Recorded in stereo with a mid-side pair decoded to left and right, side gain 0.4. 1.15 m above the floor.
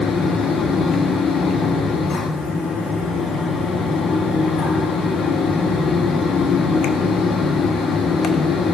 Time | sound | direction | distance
0.0 | a fan | 70° left | 1.3 m